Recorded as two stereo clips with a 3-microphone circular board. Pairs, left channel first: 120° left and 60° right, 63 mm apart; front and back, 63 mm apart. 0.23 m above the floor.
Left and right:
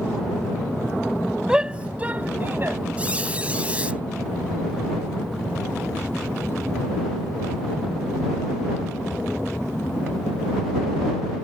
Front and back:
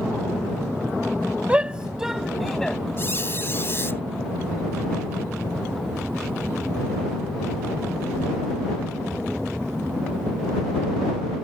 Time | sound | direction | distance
1.5 | a shout | 125° right | ?
3.0 | a squeak | straight ahead | ?